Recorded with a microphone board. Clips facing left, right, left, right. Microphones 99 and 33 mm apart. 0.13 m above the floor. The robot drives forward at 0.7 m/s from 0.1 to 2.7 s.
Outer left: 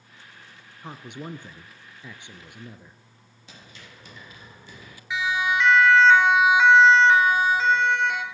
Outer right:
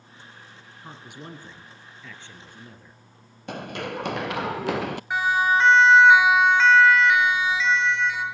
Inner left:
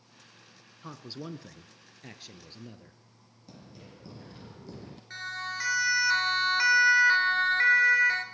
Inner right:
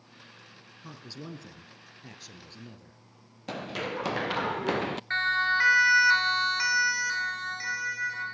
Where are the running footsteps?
60° right (ahead or behind), 1.0 m; by 5.0 s 65° right (ahead or behind), 0.5 m.